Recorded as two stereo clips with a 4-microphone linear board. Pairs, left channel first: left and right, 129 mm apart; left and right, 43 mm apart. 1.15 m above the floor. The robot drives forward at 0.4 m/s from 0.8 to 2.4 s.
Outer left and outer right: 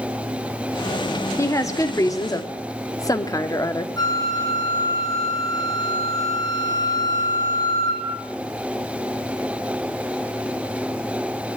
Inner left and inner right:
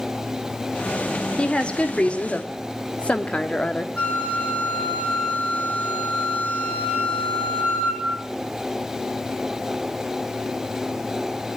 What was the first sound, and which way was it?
A woman speaking, 25° left (ahead or behind).